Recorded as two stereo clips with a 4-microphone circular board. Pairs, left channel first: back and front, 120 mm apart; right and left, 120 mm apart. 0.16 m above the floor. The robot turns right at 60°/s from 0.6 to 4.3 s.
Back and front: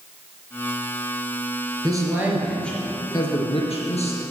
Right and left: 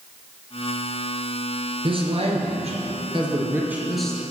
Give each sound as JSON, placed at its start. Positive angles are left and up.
{"t": 1.8, "sound": "a man speaking", "azimuth_deg": 50, "distance_m": 3.5}